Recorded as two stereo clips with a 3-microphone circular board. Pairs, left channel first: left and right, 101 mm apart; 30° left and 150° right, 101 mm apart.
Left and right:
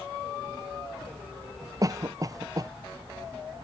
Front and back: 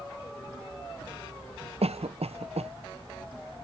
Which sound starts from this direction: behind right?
A cough, at 1.8 s.